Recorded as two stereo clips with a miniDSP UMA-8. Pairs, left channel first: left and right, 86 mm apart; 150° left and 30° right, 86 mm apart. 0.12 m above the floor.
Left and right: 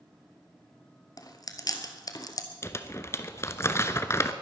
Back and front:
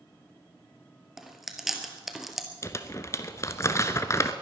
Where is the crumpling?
120° left, 0.8 m.